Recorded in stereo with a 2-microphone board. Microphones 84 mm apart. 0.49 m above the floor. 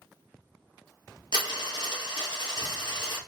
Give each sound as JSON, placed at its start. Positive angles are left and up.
{"t": 1.3, "sound": "a dropped coin", "side_deg": 70, "distance_m": 1.2}